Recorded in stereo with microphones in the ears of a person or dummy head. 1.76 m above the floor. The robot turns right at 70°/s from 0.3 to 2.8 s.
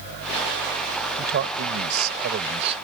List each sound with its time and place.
1.2 s a man speaking: 130° right; by 2.8 s 20° right